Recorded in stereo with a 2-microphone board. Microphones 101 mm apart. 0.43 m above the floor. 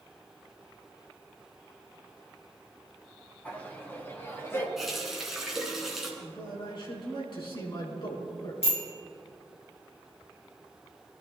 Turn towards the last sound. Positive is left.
turn(degrees=80)